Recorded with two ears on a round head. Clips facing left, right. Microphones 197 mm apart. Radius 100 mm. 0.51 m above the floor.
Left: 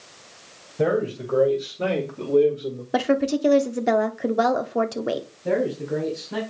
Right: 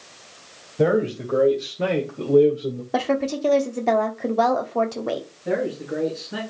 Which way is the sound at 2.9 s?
15° left (ahead or behind).